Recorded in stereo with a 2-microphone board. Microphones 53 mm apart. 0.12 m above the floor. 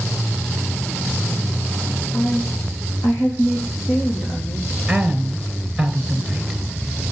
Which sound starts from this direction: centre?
A woman speaking, at 4.9 s.